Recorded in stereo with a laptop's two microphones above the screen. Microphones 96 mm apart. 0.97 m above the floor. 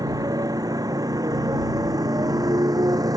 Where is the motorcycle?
45° right (ahead or behind).